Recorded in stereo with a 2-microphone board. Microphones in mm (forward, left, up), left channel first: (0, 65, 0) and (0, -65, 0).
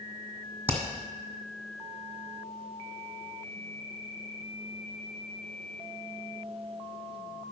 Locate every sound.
0.7 s hammering: 15° right (ahead or behind), 1.9 m